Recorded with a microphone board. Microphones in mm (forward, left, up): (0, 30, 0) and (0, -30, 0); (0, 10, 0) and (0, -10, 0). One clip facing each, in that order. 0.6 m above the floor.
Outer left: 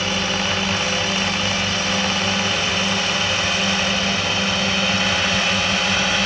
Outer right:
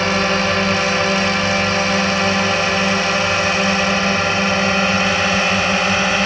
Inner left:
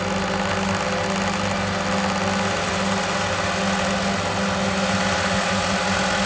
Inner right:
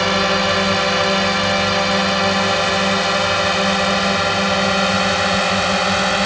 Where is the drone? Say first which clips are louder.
Outer right 6 dB, inner right 7 dB; 55° right (ahead or behind); by 6.3 s 40° right (ahead or behind).